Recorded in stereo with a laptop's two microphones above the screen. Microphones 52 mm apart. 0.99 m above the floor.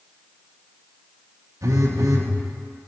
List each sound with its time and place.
1.6 s a phone buzzing: 85° right, 0.9 m